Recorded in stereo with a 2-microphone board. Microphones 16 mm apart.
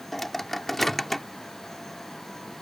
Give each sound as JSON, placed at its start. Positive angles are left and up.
{"t": 0.1, "sound": "a microwave", "side_deg": 10}